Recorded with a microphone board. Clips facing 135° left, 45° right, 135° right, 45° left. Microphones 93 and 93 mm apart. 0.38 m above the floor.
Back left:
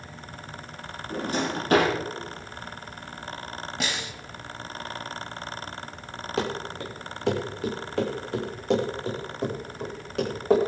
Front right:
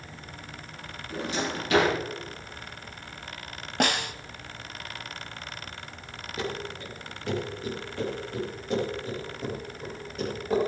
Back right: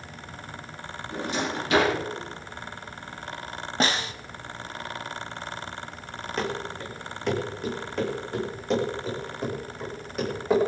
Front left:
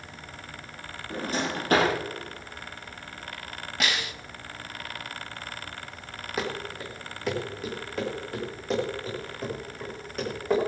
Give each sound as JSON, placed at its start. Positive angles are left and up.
{"t": 1.1, "sound": "a drawer", "azimuth_deg": 90, "distance_m": 9.0}
{"t": 3.8, "sound": "a snare drum", "azimuth_deg": -75, "distance_m": 1.0}
{"t": 6.4, "sound": "running footsteps", "azimuth_deg": 130, "distance_m": 3.5}